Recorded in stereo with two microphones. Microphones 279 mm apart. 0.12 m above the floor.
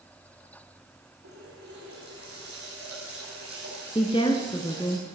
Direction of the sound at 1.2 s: 50° right (ahead or behind).